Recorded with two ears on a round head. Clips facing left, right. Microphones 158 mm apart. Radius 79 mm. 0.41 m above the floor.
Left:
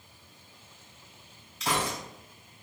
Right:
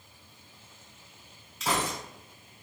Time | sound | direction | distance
1.6 | a gunshot | 5° right (ahead or behind) | 1.8 m